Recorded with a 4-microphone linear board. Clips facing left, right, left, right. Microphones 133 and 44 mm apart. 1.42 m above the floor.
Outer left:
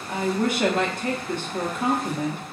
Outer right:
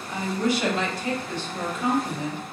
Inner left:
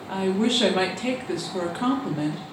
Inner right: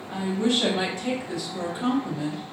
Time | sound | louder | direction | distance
0.1 | a woman speaking | outer left 1 dB, inner left 2 dB | 55° left (ahead or behind) | 0.8 m